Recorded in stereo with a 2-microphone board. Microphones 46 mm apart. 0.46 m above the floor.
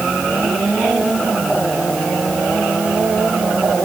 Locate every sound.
Only background noise.